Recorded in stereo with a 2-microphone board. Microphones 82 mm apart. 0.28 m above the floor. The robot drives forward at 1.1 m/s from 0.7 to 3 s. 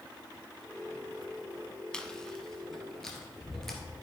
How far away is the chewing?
About 0.8 m.